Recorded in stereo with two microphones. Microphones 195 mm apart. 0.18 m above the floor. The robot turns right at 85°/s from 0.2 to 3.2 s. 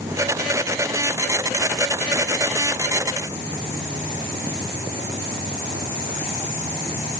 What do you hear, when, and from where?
Only background noise.